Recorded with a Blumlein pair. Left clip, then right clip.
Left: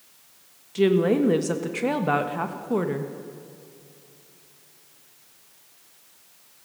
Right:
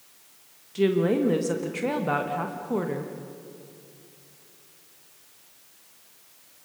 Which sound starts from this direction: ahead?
A woman speaking, at 0.8 s.